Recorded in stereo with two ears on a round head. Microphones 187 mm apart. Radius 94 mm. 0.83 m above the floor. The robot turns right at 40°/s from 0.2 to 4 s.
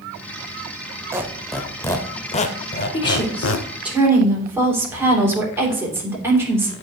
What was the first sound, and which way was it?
A squeak, 15° right (ahead or behind).